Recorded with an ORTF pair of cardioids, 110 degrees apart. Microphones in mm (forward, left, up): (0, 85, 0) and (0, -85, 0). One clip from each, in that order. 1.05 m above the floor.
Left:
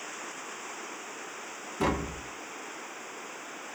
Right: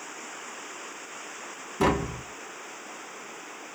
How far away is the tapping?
About 0.8 m.